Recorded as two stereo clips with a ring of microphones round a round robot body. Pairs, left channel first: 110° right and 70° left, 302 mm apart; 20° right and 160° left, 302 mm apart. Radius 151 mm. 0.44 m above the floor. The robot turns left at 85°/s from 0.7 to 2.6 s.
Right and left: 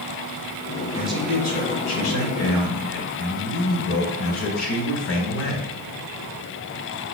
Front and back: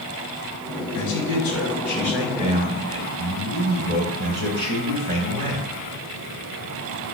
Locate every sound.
0.9 s a man speaking: 10° right, 2.5 m; by 5.7 s 150° right, 2.5 m